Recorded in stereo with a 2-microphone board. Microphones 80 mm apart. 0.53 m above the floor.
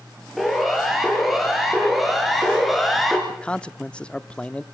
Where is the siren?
Centre (ahead or behind), 8 m.